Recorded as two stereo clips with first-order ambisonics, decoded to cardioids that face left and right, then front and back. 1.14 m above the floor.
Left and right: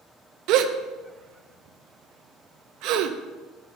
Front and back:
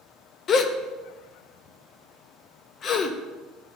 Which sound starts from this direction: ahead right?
A gasp, at 0.5 s.